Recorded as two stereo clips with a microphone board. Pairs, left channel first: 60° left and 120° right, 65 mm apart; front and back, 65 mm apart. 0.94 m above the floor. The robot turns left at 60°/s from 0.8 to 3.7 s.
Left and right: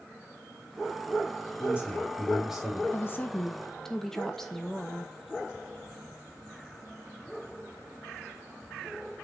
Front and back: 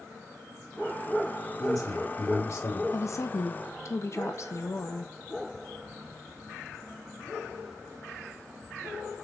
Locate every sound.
1.6 s a man speaking: 15° left, 3 m; by 2.8 s 60° right, 3 m
2.9 s a woman speaking: 25° left, 1.0 m; by 5.1 s 25° right, 1.0 m